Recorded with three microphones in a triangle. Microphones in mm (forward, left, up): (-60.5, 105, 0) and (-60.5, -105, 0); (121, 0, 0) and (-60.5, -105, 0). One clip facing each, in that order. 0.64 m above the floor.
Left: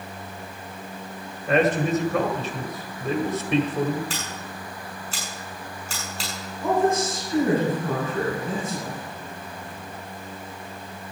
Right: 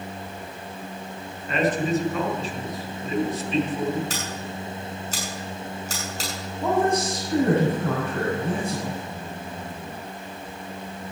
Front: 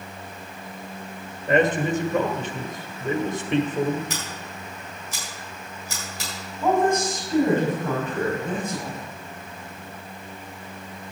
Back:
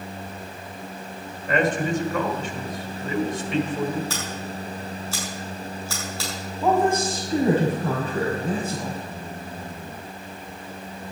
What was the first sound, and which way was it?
A man speaking, 75° left.